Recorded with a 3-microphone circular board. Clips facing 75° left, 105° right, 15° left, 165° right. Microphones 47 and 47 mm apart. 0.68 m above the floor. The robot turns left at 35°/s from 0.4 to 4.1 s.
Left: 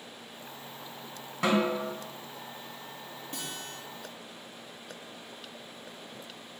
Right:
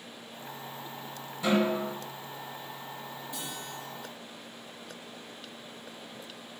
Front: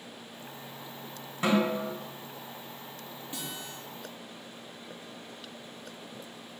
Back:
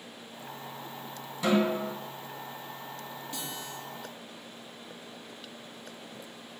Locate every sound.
1.4 s a snare drum: 70° left, 1.4 m; by 1.9 s 55° left, 1.4 m
3.3 s a guitar: 80° left, 1.1 m; by 3.8 s 60° left, 1.1 m